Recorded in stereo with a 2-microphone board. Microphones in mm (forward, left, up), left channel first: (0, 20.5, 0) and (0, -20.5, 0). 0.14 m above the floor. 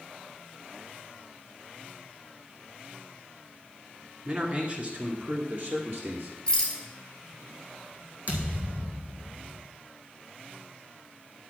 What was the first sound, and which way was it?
A man speaking, 30° right (ahead or behind).